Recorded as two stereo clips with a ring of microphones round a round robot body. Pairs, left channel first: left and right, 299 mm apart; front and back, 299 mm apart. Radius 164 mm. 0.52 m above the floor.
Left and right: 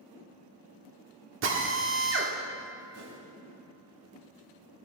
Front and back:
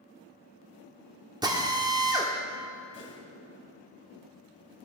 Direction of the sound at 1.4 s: 110° right.